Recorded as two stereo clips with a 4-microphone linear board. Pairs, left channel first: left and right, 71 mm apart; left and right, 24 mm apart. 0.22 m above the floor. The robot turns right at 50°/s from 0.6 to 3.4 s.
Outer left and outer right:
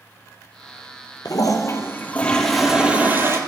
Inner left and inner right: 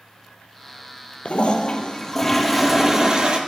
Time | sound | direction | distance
1.2 | a toilet flushing | 115° left | 1.4 m